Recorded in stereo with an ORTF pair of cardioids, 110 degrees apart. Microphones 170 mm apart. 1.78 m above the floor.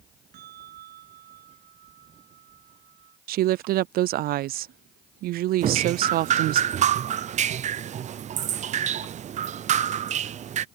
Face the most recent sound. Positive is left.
turn(degrees=-45)